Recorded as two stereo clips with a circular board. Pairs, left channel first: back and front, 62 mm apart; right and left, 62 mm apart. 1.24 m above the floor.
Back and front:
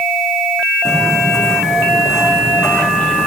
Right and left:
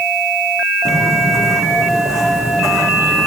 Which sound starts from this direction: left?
Footsteps, at 0.8 s.